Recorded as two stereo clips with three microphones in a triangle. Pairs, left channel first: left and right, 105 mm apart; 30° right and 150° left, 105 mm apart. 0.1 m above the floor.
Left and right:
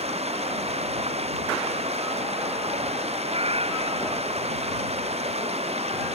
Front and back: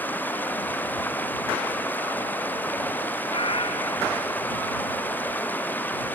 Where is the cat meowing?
65° right.